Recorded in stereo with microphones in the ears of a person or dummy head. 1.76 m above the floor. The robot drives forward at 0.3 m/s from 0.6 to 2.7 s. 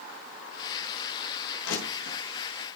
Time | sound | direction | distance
1.6 | crushing | 80° left | 10 m